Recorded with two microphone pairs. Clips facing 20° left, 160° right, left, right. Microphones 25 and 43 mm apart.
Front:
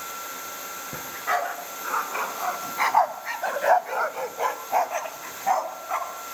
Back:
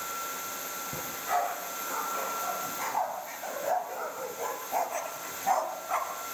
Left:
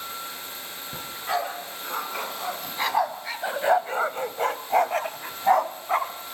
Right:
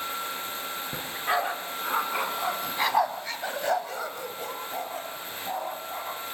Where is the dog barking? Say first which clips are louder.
Front 4 dB, even; 25° right, 3.5 m; by 6.1 s 105° left, 2.5 m.